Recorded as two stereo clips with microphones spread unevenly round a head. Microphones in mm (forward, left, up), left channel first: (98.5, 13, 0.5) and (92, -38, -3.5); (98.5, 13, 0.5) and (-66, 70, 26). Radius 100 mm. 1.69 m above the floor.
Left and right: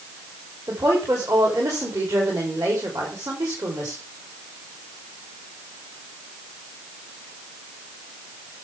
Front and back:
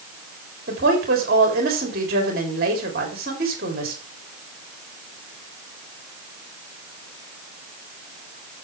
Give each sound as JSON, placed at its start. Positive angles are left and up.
{"t": 0.7, "sound": "a woman speaking", "azimuth_deg": -155, "distance_m": 3.5}